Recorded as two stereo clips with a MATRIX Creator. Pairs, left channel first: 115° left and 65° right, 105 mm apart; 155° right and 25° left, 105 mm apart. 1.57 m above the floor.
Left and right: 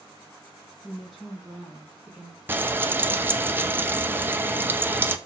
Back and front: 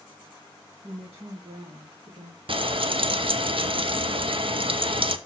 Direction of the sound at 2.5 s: Straight ahead.